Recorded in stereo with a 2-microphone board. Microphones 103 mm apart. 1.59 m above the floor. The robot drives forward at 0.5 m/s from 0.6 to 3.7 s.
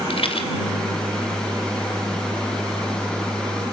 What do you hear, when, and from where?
0.1 s a rattle: 65° left (ahead or behind), 2.5 m